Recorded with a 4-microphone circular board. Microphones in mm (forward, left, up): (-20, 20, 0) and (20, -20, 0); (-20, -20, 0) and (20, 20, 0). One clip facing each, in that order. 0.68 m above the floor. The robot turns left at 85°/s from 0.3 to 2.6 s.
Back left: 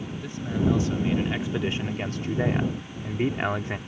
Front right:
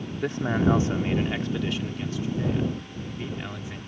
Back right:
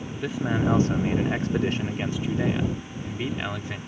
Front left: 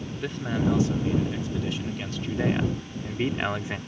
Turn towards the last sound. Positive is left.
turn(degrees=115)